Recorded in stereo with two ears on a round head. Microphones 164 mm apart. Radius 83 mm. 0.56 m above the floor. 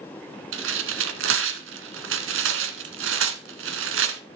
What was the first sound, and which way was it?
Tearing paper, 80° right.